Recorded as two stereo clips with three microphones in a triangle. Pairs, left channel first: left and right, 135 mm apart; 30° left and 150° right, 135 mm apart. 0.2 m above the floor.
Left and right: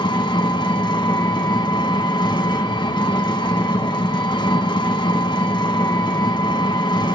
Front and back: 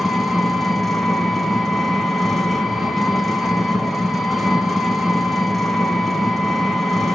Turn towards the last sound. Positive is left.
turn(degrees=120)